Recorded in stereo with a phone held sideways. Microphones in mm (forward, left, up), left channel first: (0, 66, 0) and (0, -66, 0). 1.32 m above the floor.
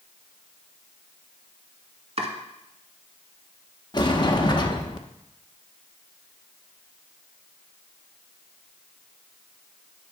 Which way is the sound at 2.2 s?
55° right (ahead or behind).